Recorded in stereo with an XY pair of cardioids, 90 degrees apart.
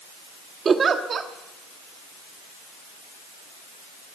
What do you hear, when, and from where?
0.7 s a giggle: 50° right, 1.3 m